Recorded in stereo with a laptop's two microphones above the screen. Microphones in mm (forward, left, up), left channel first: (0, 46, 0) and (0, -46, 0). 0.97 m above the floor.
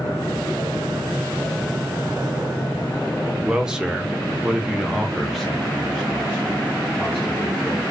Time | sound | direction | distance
3.5 | a man speaking | 10° right (ahead or behind) | 1.0 m